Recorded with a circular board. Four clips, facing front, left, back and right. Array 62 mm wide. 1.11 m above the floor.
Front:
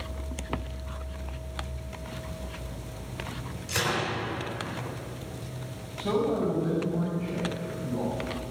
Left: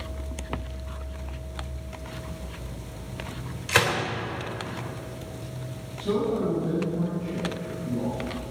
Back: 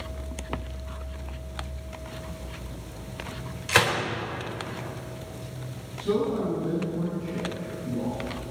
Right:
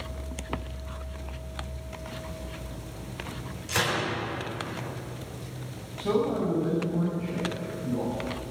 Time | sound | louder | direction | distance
3.7 | a gunshot | left 5 dB, back 6 dB | 145° left | 3.5 m
6.0 | a man speaking | even, back 1 dB | 35° right | 5.5 m